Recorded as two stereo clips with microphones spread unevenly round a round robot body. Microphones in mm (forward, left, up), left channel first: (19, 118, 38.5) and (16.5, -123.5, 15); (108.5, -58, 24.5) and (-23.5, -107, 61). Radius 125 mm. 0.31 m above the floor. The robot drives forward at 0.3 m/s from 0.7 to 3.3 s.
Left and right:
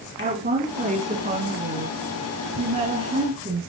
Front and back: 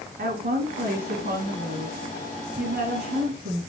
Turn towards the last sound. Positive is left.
turn(degrees=-155)